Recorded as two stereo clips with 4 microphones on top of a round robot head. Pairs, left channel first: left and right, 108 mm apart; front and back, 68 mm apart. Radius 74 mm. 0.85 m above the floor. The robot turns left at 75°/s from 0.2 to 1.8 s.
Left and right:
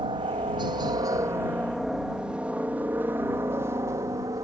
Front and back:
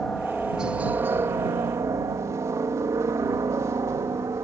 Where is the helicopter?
80° right; by 4.5 s 140° right.